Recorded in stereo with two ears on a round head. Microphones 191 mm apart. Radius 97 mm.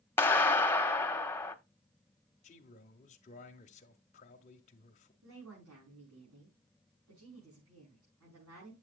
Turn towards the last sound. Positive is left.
turn(degrees=-80)